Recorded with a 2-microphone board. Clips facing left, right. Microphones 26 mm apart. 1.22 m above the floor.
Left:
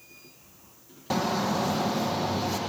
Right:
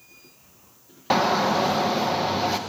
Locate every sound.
1.1 s a shout: 40° right (ahead or behind), 1.3 m